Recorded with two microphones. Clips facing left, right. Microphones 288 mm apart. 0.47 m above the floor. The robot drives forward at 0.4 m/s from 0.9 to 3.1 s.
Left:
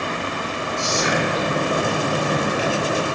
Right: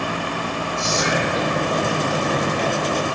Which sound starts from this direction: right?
Whispering, at 0.8 s.